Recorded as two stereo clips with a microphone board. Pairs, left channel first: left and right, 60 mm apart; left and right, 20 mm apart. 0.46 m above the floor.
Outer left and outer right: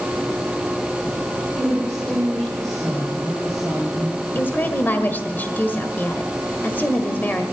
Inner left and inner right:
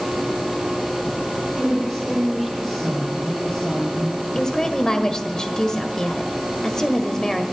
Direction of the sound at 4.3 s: 35° left (ahead or behind).